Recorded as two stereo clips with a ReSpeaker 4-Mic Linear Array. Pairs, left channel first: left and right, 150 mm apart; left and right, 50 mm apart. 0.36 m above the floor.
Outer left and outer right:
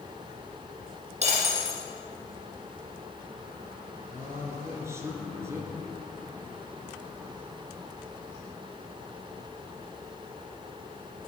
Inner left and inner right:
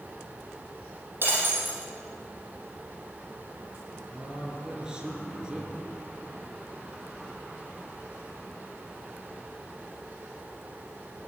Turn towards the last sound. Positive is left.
turn(degrees=-15)  # may be behind; listen again after turning